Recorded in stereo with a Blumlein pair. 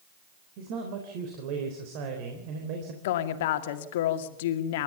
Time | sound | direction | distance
0.6 | a man speaking | 45° right | 3.5 m
3.0 | a woman speaking | 55° left | 2 m